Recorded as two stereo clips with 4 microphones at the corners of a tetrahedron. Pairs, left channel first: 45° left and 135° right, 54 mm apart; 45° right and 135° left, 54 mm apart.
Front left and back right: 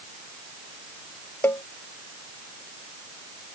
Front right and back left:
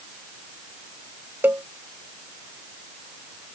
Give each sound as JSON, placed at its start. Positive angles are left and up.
{"t": 1.4, "sound": "a cowbell", "azimuth_deg": 85}